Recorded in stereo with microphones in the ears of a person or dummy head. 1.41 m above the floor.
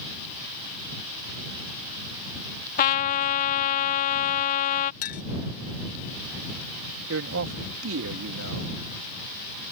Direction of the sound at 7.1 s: 65° right (ahead or behind).